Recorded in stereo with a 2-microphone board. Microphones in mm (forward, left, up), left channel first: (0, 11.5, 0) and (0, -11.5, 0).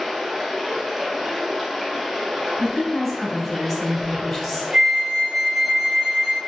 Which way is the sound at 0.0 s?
5° right (ahead or behind).